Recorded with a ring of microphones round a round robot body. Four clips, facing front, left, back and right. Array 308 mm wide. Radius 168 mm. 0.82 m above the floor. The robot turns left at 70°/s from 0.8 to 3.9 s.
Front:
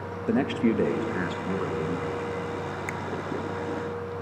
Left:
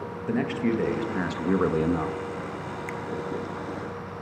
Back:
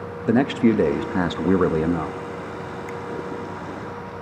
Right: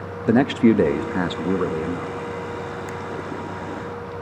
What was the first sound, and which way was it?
A man speaking, 120° right.